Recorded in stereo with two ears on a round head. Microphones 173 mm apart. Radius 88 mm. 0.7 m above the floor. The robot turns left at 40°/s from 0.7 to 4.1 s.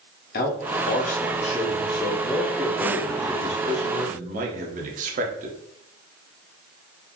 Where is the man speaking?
75° left, 0.7 m; by 5.6 s 60° right, 0.7 m.